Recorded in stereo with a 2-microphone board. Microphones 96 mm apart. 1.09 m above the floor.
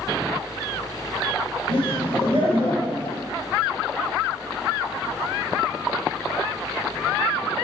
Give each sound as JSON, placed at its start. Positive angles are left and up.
{"t": 1.7, "sound": "laughter", "side_deg": 80, "distance_m": 3.0}